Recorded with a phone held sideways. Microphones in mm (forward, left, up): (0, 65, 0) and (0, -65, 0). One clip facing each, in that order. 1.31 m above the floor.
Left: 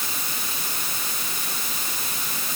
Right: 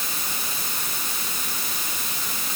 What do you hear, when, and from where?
Only background noise.